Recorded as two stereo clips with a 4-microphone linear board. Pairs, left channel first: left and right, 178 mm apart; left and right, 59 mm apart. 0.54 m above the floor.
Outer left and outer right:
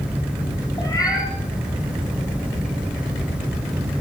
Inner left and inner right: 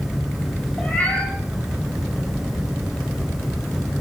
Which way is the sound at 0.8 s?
20° left (ahead or behind).